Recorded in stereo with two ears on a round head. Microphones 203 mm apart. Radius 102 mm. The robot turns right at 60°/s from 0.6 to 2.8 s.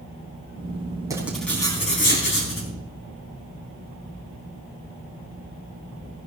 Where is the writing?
15° right, 4 m; by 2.7 s 80° left, 4 m.